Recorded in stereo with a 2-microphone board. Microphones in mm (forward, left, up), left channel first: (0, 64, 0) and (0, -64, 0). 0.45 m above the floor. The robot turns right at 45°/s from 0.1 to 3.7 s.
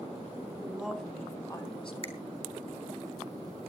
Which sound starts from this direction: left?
A finger snap, at 2.0 s.